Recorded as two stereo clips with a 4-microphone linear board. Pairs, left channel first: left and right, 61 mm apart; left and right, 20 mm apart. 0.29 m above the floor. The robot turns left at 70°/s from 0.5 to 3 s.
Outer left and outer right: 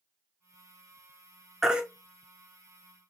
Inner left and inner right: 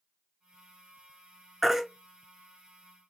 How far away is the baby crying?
About 1.1 m.